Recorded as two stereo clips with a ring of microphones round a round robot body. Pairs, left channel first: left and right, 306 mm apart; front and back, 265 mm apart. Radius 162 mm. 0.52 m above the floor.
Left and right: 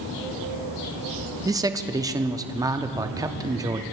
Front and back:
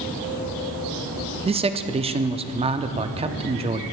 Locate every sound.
1.4 s a man speaking: 150° right, 0.7 m